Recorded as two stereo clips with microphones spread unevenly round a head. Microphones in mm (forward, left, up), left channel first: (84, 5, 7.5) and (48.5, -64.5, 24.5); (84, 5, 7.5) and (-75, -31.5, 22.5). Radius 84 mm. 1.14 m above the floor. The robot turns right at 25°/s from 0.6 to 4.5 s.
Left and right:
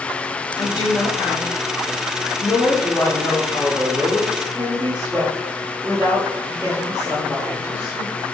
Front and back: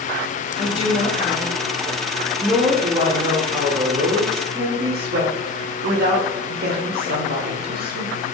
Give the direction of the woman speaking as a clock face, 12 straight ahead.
10 o'clock.